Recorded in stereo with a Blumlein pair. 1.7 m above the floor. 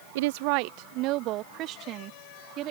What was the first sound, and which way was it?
A woman speaking, 55° right.